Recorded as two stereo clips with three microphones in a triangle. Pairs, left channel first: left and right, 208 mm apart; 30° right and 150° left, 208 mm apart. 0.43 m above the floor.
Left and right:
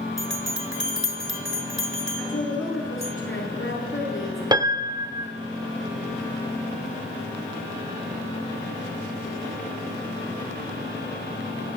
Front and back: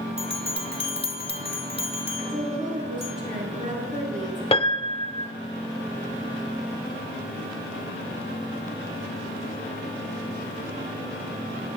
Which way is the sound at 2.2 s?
95° left.